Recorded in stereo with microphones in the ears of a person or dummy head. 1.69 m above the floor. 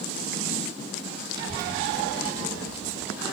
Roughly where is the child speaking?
Right.